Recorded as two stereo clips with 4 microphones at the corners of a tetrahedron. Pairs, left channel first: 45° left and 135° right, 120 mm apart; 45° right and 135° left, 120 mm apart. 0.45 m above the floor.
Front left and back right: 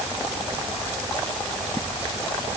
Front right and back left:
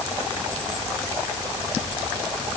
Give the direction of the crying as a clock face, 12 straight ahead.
I don't hear crying.